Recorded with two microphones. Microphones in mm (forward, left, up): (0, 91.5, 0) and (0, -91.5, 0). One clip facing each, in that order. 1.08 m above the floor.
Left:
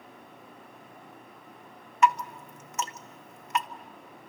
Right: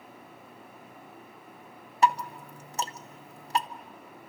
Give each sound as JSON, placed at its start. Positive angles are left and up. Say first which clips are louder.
{"t": 2.0, "sound": "dripping", "louder": "left 1 dB", "side_deg": -35, "distance_m": 0.6}